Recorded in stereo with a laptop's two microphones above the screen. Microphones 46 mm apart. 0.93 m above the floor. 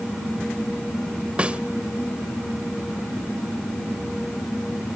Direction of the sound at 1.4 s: 25° right (ahead or behind).